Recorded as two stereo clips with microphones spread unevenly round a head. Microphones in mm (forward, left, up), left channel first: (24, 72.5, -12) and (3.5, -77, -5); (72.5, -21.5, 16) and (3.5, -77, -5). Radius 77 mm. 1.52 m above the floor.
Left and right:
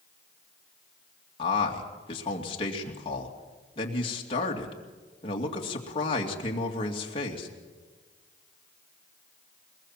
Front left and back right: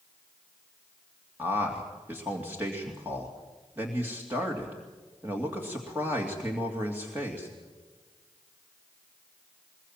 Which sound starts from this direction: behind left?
A man speaking, at 1.4 s.